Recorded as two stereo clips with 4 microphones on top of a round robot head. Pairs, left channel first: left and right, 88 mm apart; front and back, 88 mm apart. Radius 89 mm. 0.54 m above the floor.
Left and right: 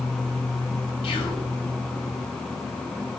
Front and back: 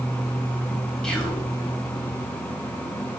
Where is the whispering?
80° left, 4.5 m.